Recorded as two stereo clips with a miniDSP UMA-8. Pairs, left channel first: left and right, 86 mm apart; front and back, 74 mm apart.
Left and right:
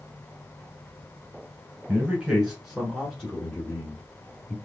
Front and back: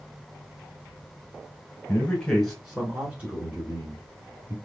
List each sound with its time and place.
1.9 s a man speaking: 35° right, 1.3 m; by 4.5 s 155° left, 1.8 m